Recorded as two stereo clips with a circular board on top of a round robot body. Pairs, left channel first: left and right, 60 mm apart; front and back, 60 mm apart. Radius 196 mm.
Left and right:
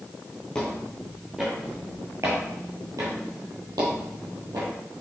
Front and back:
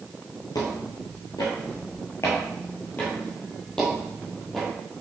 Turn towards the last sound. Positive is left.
turn(degrees=-85)